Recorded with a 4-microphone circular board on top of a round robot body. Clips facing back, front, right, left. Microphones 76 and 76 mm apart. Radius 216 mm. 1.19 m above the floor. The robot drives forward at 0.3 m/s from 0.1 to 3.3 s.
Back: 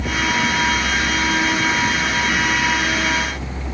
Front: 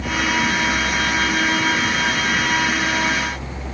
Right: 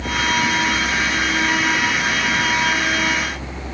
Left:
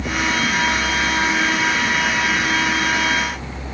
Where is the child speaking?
I don't hear a child speaking.